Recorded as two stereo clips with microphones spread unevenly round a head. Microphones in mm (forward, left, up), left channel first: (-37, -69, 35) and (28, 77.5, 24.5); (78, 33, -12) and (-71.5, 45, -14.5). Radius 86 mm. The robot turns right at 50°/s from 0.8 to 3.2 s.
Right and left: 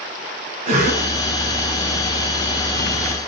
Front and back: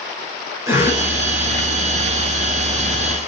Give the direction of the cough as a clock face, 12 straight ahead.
9 o'clock.